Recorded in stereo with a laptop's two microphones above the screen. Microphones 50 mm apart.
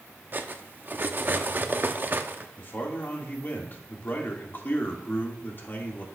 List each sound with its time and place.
0.3 s cutlery clinking: 40° right (ahead or behind), 0.7 m
2.6 s a man speaking: 45° left (ahead or behind), 1.9 m